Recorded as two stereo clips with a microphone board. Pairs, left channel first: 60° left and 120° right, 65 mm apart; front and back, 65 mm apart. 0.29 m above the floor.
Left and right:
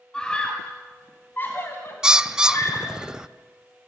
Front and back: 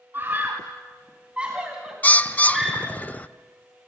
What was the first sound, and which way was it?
A scream, 135° left.